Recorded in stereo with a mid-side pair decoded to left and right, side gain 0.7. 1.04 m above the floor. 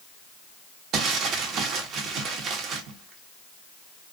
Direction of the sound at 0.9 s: 45° right.